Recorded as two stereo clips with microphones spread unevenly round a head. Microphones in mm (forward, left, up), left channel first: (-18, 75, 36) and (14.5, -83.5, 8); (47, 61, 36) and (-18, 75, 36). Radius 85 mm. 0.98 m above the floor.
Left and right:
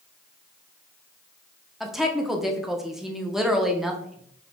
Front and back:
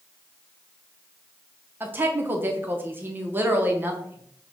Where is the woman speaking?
150° right, 0.6 m.